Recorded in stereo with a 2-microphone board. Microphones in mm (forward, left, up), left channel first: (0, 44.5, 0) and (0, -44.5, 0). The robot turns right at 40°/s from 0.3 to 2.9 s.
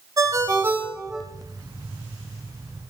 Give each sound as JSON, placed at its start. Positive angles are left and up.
{"t": 0.2, "sound": "a ringtone", "azimuth_deg": -40, "distance_m": 2.0}